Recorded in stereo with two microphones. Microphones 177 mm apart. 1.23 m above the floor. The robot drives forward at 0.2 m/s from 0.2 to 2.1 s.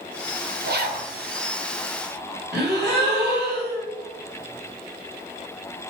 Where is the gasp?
75° right (ahead or behind), 1.9 m.